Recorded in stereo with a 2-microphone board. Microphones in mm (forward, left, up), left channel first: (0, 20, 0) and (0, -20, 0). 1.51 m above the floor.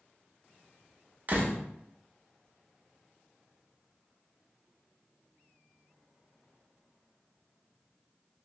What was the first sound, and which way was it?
A door slam, 40° right (ahead or behind).